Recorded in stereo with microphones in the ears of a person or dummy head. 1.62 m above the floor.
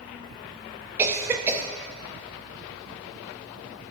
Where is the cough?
10° right (ahead or behind), 0.6 m.